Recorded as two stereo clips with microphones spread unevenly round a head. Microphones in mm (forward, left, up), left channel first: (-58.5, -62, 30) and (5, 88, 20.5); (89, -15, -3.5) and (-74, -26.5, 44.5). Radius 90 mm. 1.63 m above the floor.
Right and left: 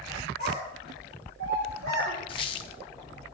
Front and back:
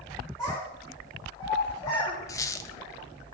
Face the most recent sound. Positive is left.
turn(degrees=-80)